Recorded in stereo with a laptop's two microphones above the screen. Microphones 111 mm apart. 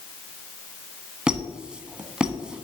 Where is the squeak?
10° right (ahead or behind), 0.8 m.